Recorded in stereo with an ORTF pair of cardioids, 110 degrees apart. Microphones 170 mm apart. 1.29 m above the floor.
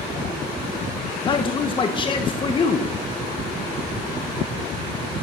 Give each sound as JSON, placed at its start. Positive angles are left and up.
{"t": 1.2, "sound": "a man speaking", "azimuth_deg": 30, "distance_m": 0.9}